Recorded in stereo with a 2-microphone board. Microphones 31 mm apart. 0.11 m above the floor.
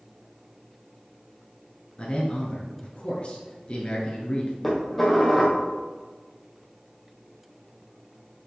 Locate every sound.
2.0 s a man speaking: 35° left (ahead or behind), 1.6 m
4.6 s dishes clattering: centre (ahead or behind), 2 m